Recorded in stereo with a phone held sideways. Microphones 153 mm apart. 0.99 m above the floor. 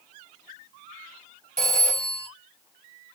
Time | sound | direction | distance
1.6 | a phone ringing | 50° right (ahead or behind) | 1.4 m